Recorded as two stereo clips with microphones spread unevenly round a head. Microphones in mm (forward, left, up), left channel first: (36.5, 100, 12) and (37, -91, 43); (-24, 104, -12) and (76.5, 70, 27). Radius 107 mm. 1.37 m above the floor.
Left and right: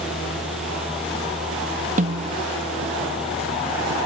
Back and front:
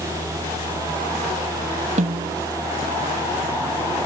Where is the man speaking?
I don't hear a man speaking.